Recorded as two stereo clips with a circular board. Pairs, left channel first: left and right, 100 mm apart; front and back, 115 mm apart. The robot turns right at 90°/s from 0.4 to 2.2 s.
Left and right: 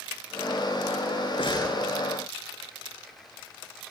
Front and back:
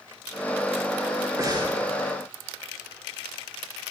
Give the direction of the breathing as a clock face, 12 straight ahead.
8 o'clock.